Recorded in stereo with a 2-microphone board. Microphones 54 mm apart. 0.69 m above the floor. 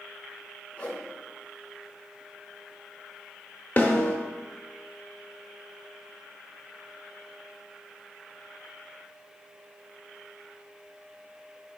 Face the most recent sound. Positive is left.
turn(degrees=35)  # may be behind; listen again after turning